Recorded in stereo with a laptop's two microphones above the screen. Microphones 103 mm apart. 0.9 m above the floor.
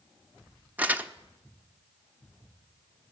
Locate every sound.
0.8 s crumpling: 15° right (ahead or behind), 0.6 m